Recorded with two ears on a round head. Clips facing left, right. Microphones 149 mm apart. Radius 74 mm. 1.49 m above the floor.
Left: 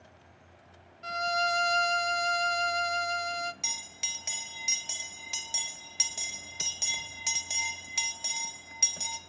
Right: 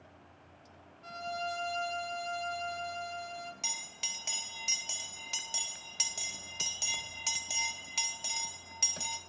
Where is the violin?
75° left (ahead or behind), 1.1 m.